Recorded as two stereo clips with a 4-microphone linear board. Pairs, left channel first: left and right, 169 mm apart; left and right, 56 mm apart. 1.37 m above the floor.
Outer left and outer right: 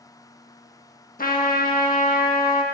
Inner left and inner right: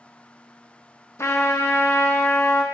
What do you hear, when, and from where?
1.2 s a trumpet: 55° left (ahead or behind), 1.2 m